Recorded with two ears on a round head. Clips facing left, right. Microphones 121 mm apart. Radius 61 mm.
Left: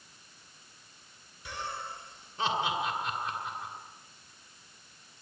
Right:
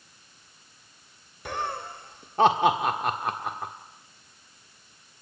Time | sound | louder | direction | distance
1.4 | laughter | right 7 dB | 45° right (ahead or behind) | 1.5 m